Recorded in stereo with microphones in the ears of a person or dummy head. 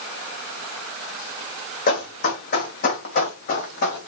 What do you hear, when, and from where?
1.9 s running footsteps: 50° left (ahead or behind), 3 m; by 4.1 s 65° left (ahead or behind), 4.5 m